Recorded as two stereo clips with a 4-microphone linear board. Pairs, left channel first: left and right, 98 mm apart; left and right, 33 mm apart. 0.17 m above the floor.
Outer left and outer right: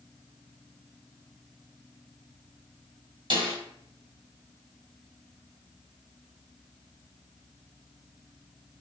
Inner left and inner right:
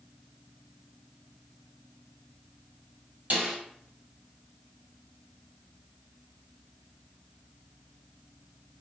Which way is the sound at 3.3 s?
55° right (ahead or behind).